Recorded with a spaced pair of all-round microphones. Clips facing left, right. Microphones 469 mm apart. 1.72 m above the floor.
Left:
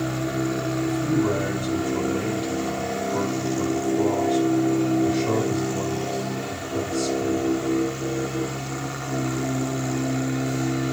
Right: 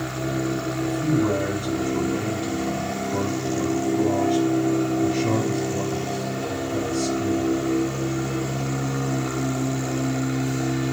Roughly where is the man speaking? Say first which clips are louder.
Right 1 dB; right.